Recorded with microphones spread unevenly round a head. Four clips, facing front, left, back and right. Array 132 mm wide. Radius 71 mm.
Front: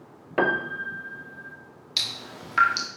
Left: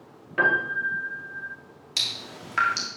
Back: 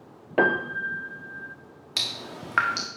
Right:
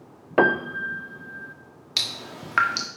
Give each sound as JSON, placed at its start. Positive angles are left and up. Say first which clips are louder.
{"t": 0.4, "sound": "a piano", "louder": "right 3 dB, back 1 dB", "azimuth_deg": -110, "distance_m": 0.7}
{"t": 2.0, "sound": "dripping", "louder": "right 3 dB, back 2 dB", "azimuth_deg": -145, "distance_m": 1.3}